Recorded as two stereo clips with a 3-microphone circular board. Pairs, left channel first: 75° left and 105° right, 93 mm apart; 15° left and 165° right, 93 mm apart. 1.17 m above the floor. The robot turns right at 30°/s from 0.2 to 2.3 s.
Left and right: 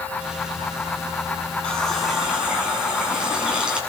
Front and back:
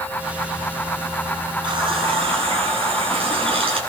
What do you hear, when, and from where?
1.6 s a running tap: 155° left, 7.5 m; by 3.8 s 175° left, 7.5 m